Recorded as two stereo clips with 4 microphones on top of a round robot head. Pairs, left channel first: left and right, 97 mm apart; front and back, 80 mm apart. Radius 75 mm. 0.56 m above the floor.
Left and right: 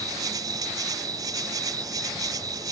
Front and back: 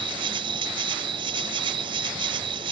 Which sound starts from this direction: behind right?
An insect, at 0.0 s.